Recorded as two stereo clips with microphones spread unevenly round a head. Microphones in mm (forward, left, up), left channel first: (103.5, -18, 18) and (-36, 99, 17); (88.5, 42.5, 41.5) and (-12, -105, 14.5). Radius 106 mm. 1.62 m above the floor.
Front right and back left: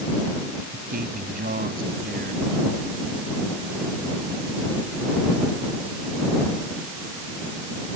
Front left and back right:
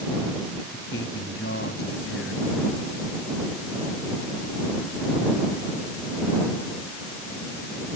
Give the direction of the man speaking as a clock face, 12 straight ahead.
9 o'clock.